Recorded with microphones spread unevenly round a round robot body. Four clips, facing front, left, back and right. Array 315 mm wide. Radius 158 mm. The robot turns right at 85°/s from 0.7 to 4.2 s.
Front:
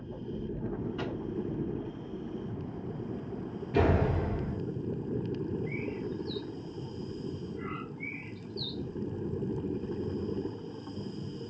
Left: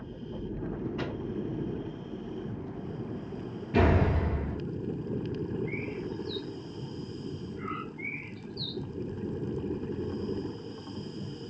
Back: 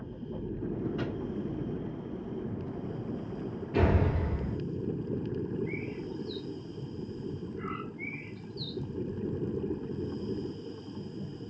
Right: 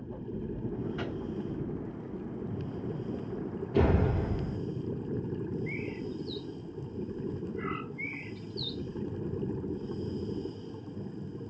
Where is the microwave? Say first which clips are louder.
Left 1 dB, back 1 dB; 155° right, 3 m; by 1.1 s 140° right, 3 m.